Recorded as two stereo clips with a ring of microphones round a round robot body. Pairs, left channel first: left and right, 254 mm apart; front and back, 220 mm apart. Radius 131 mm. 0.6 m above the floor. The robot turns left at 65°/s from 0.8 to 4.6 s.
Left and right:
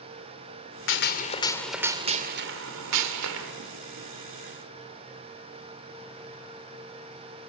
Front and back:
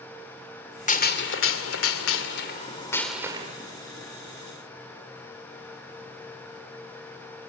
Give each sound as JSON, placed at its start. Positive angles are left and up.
{"t": 0.9, "sound": "a gunshot", "azimuth_deg": 55, "distance_m": 2.0}